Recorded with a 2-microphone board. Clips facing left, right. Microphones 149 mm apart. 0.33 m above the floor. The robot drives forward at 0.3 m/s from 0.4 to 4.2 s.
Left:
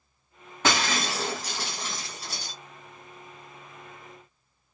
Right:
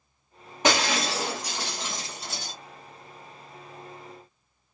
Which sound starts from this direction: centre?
Breaking glass, at 0.6 s.